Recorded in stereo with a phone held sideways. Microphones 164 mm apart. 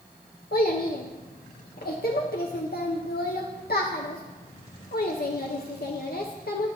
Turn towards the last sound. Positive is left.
turn(degrees=75)  # may be behind; listen again after turning